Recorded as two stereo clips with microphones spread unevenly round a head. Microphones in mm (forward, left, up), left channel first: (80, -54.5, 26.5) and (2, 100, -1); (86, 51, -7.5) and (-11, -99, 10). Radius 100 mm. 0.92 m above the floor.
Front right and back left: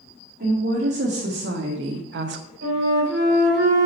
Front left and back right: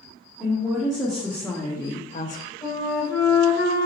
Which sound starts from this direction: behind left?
A woman speaking, at 0.4 s.